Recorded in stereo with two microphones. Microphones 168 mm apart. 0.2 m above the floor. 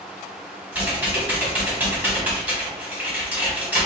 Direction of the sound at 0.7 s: 10° right (ahead or behind).